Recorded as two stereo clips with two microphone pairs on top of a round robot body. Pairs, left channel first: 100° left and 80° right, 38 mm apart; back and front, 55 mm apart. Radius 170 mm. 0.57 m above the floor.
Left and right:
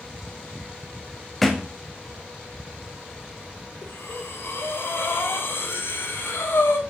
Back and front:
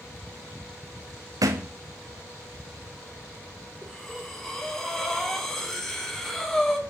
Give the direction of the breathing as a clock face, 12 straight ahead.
9 o'clock.